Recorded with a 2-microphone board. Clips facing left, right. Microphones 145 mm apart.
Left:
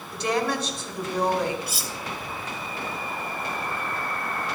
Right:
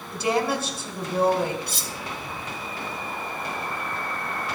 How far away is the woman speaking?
About 2.5 m.